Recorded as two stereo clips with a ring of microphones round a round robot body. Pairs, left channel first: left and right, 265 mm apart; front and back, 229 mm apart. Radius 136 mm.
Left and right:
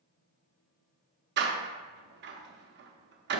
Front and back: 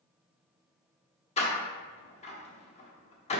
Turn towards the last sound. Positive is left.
turn(degrees=-55)